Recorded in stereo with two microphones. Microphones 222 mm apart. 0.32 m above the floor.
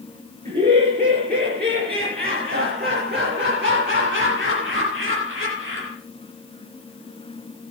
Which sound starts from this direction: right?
Laughter, at 0.5 s.